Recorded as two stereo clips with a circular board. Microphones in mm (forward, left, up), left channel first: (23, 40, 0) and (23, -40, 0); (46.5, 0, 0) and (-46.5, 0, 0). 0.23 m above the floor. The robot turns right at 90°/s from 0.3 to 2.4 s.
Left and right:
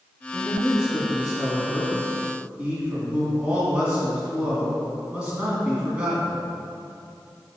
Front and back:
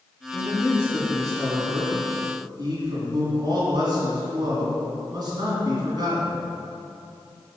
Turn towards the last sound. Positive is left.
turn(degrees=-160)